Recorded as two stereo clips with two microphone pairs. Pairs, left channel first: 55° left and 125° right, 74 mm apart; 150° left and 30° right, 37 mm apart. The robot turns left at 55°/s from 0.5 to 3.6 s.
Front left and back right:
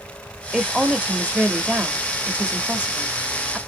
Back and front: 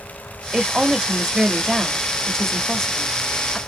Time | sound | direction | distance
0.5 | a woman speaking | 45° right | 0.9 m